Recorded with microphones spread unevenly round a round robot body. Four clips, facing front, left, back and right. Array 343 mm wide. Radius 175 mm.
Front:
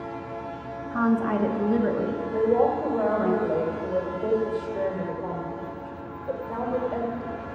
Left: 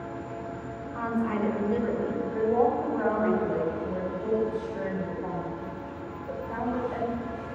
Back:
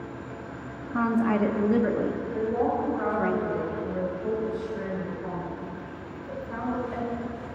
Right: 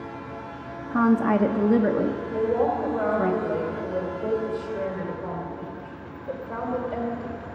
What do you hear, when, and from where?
0.9 s a woman speaking: 85° right, 0.8 m
2.3 s a woman speaking: 30° right, 3 m